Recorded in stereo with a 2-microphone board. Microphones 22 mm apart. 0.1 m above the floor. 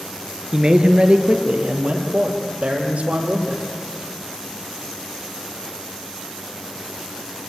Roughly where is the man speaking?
Right.